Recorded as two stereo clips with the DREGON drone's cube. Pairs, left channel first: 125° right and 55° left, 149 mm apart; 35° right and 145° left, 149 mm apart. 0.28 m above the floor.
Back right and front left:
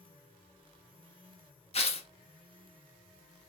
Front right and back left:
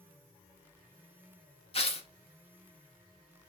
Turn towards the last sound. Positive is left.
turn(degrees=-80)